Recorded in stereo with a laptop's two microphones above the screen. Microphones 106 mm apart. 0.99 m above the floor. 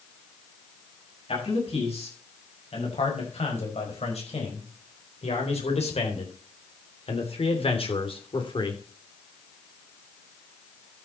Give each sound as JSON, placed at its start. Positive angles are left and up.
{"t": 1.3, "sound": "a man speaking", "side_deg": 75, "distance_m": 6.5}